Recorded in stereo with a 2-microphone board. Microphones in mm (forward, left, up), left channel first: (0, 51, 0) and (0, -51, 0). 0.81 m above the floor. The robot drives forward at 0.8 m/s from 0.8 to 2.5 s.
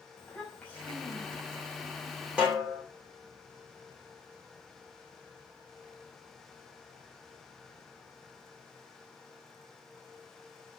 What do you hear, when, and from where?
0.2 s a child speaking: 15° left (ahead or behind), 4 m; by 1.6 s 10° left (ahead or behind), 5 m
2.4 s a snare drum: 10° right (ahead or behind), 3 m